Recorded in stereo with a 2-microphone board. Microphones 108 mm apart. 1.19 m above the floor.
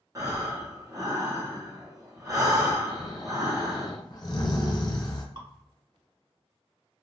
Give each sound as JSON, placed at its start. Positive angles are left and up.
{"t": 0.1, "sound": "breathing", "side_deg": -30, "distance_m": 0.8}
{"t": 2.9, "sound": "snoring", "side_deg": 35, "distance_m": 0.7}
{"t": 5.3, "sound": "dripping", "side_deg": -45, "distance_m": 1.5}